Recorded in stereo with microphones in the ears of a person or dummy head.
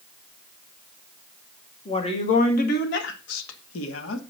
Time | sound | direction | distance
1.9 | a woman speaking | 30° left (ahead or behind) | 2.5 m